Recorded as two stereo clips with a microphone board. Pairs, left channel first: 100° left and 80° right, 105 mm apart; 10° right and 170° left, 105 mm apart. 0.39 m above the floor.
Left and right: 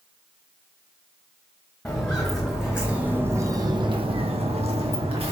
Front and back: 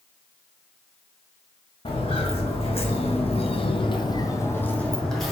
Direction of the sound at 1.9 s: 20° left.